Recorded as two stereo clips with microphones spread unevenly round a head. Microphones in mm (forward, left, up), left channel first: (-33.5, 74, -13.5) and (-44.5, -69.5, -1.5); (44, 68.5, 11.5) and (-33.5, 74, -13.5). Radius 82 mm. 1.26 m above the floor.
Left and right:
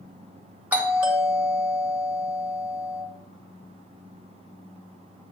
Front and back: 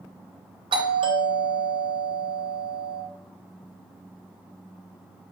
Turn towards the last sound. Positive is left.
turn(degrees=-175)